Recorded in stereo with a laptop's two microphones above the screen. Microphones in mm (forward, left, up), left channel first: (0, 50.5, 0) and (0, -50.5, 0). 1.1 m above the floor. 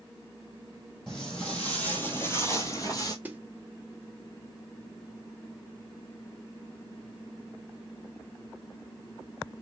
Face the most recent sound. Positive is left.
turn(degrees=-15)  # may be behind; listen again after turning